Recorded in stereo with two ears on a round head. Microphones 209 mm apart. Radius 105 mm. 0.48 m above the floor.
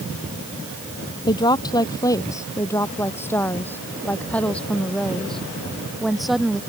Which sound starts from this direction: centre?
A woman speaking, at 1.3 s.